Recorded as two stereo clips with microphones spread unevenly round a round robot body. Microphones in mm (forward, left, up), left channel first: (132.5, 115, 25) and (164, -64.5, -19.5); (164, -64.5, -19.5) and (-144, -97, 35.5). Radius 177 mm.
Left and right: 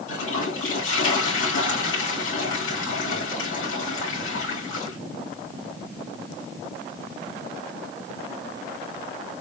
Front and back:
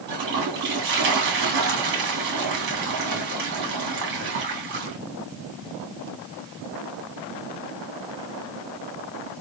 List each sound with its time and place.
0.1 s a toilet flushing: 125° left, 2 m